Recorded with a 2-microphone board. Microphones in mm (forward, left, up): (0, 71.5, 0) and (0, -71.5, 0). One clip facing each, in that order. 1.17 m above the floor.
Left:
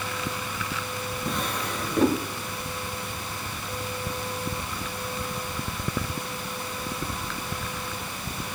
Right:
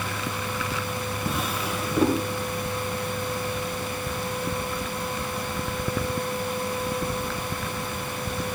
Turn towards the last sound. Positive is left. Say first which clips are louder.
# even
turn(degrees=-5)  # may be behind; listen again after turning